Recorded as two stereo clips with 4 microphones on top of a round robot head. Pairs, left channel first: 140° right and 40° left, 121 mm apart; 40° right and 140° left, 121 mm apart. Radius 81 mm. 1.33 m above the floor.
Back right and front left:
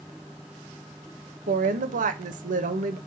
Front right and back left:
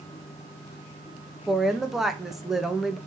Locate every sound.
1.5 s a woman speaking: 55° left, 1.4 m